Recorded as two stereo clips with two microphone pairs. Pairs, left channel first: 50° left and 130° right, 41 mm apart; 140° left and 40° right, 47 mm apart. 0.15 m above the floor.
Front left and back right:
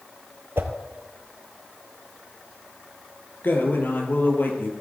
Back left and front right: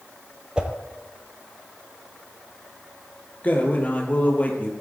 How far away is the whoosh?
About 1.6 m.